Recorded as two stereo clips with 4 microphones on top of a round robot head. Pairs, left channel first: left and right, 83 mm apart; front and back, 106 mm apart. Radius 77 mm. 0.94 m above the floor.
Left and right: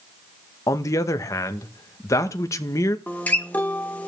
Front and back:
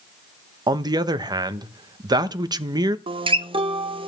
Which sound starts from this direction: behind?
A guitar, at 3.1 s.